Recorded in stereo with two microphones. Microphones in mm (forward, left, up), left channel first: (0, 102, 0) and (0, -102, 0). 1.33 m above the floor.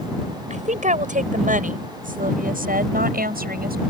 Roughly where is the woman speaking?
Right.